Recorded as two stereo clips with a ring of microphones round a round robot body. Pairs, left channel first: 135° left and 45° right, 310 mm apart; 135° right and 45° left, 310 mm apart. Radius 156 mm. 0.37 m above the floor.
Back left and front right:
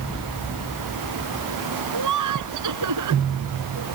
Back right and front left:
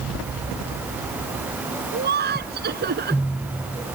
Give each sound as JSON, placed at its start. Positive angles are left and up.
{"t": 1.9, "sound": "laughter", "azimuth_deg": -15}